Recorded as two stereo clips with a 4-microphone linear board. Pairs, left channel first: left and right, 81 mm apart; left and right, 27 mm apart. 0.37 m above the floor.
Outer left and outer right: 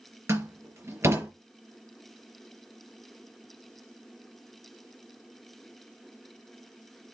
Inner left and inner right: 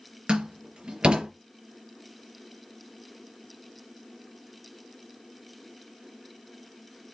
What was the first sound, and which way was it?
A door slam, 35° right (ahead or behind).